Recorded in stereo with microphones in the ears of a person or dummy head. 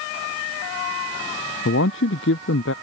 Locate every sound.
1.6 s a man speaking: 60° left (ahead or behind)